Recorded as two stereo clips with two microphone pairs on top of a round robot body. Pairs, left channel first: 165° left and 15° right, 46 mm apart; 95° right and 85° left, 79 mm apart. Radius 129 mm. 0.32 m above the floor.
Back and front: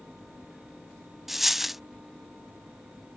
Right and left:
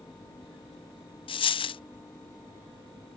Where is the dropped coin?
100° right.